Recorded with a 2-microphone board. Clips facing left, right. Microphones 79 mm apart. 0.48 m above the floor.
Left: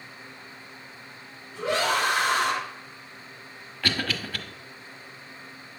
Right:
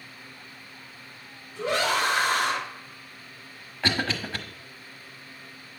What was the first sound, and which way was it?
A scream, 80° left.